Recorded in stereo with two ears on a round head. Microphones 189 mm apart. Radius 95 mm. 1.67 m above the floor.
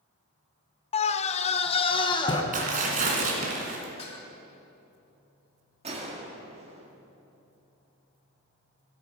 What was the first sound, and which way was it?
A scream, 30° left (ahead or behind).